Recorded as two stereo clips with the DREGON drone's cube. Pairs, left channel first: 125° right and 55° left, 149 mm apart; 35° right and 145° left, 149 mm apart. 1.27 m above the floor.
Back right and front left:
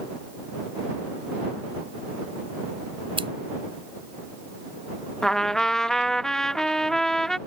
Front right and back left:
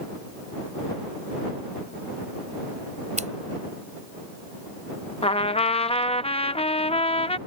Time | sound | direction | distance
3.2 | scissors | 110° left | ?
5.2 | a trumpet | 40° right | ?